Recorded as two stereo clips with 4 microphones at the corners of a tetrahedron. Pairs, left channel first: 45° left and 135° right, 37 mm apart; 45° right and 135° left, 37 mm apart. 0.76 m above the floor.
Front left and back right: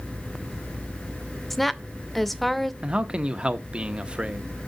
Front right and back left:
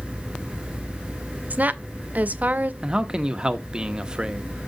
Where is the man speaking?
175° right, 0.6 m.